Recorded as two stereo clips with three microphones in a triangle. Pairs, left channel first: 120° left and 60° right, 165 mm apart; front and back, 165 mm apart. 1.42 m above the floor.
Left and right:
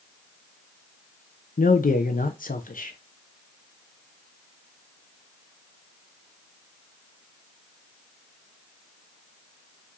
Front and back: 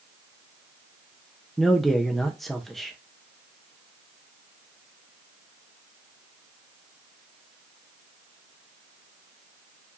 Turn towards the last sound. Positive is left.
turn(degrees=90)